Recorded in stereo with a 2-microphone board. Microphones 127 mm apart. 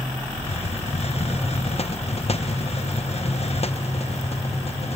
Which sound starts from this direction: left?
A hiss, at 0.4 s.